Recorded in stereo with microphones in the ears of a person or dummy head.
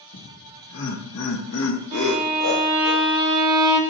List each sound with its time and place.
0.1 s laughter: 60° left (ahead or behind), 1.5 m
1.9 s a violin: 25° right (ahead or behind), 1.2 m